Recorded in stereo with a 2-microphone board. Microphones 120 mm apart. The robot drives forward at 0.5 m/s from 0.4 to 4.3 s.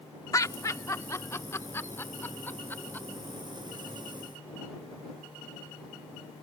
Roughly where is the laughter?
Left.